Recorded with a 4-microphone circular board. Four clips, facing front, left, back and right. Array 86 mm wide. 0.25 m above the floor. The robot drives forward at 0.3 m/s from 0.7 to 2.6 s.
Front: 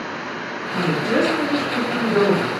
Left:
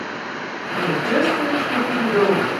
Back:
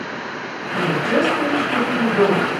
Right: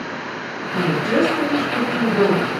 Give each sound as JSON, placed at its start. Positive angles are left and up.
{"t": 0.7, "sound": "a woman speaking", "azimuth_deg": -165, "distance_m": 1.1}